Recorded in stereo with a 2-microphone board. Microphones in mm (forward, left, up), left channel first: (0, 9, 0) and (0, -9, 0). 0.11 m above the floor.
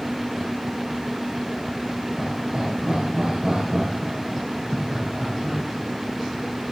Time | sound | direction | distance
2.2 | laughter | 40° right (ahead or behind) | 4 m